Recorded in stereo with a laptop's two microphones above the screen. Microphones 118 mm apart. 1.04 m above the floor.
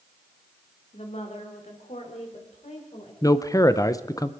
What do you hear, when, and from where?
0.9 s a woman speaking: 65° left (ahead or behind), 3 m; by 3.1 s 80° left, 5 m
3.2 s a man speaking: 30° left (ahead or behind), 0.6 m